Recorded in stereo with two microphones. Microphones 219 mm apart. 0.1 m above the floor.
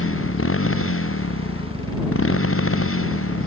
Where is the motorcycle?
75° left (ahead or behind); by 3.5 s 80° left.